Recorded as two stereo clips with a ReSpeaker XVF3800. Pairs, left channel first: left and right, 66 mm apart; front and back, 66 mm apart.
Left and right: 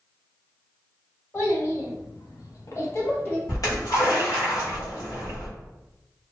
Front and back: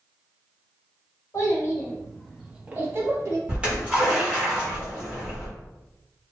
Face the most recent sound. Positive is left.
turn(degrees=110)